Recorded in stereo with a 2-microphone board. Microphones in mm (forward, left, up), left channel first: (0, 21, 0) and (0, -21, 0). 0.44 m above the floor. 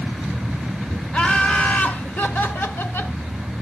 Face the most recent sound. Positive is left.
turn(degrees=60)  # may be behind; listen again after turning